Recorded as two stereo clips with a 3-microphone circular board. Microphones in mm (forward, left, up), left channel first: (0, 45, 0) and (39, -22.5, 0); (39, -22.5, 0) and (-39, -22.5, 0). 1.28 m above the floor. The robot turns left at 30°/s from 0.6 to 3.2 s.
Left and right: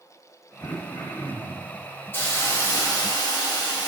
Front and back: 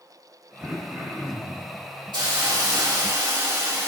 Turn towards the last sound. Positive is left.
turn(degrees=150)